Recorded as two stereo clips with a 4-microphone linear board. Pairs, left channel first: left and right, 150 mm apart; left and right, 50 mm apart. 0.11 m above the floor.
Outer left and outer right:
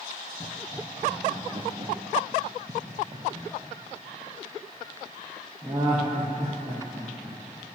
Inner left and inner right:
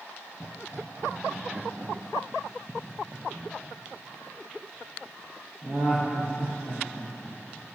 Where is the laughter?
45° right (ahead or behind), 2.5 m; by 7.6 s 10° right (ahead or behind), 6 m.